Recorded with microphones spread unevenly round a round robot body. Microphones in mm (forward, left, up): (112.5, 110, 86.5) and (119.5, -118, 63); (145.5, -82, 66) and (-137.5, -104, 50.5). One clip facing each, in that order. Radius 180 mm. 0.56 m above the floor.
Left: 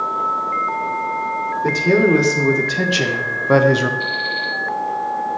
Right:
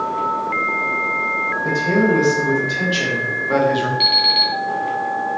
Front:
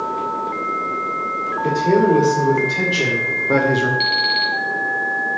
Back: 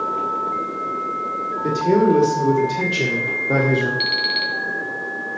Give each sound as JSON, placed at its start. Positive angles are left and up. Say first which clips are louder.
{"t": 1.6, "sound": "a man speaking", "louder": "left 2 dB, front 1 dB", "azimuth_deg": 115, "distance_m": 2.0}
{"t": 4.0, "sound": "an alarm clock", "louder": "right 2 dB, front 2 dB", "azimuth_deg": -115, "distance_m": 2.5}